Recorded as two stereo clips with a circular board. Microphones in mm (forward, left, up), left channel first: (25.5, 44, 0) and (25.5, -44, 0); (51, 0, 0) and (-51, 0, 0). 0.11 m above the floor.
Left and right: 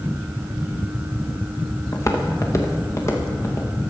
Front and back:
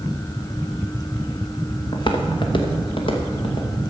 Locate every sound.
1.9 s footsteps: 35° left, 1.7 m